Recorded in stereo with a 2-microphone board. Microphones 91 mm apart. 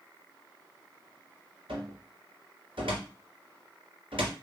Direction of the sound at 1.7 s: 75° right (ahead or behind).